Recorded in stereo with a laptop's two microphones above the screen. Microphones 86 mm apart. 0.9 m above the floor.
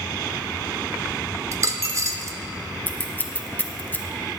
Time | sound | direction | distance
1.5 | a dropped coin | 40° right (ahead or behind) | 0.7 m
2.9 | scissors | 20° left (ahead or behind) | 1.0 m